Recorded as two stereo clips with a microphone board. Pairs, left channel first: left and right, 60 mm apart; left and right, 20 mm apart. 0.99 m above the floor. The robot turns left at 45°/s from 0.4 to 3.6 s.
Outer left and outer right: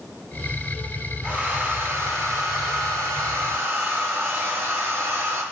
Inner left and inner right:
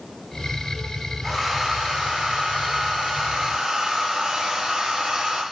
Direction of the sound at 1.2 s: 15° right.